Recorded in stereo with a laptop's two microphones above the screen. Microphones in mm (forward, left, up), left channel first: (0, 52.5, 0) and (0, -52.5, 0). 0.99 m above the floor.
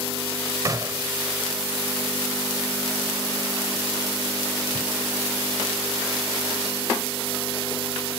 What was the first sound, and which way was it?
A gunshot, 35° right (ahead or behind).